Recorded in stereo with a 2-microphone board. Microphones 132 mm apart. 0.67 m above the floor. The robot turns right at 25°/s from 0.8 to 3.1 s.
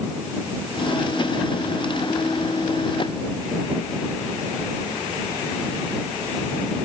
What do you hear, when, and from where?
Only background noise.